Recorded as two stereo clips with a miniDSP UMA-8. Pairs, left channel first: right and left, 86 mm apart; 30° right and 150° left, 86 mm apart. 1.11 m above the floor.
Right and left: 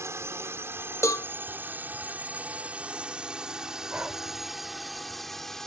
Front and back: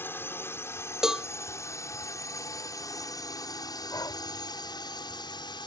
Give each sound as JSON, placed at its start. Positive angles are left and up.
{"t": 0.0, "sound": "a drone", "azimuth_deg": 35}
{"t": 1.0, "sound": "a cowbell", "azimuth_deg": -130}
{"t": 3.9, "sound": "breathing", "azimuth_deg": 15}